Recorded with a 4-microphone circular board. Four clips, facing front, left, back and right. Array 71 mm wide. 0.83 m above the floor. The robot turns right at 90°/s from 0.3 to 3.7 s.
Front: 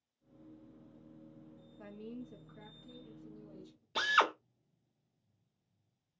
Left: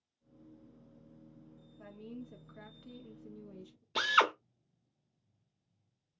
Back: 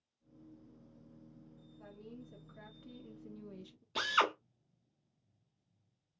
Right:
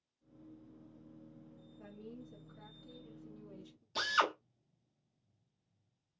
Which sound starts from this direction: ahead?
A woman speaking, at 1.8 s.